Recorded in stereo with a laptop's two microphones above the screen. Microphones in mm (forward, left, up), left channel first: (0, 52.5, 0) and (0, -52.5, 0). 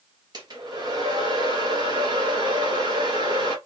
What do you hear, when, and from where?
0.3 s a hair dryer: 45° right (ahead or behind), 0.8 m